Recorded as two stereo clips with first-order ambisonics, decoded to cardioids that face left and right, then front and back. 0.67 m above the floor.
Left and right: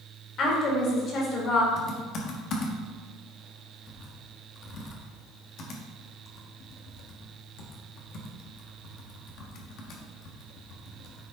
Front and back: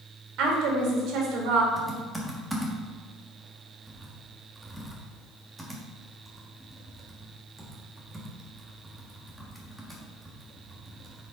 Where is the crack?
No crack in this recording.